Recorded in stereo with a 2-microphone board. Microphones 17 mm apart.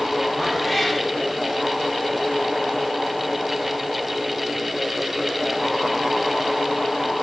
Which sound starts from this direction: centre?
A cat meowing, at 0.4 s.